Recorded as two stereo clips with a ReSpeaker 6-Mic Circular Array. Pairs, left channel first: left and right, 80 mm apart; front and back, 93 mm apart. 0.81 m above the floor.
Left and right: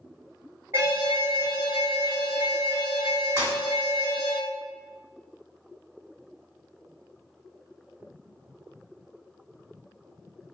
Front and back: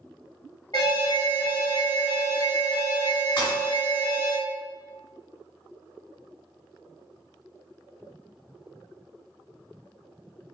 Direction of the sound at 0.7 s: 35° right.